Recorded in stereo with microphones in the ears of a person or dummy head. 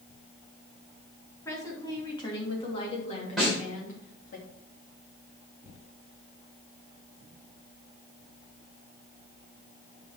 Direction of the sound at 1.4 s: 20° left (ahead or behind).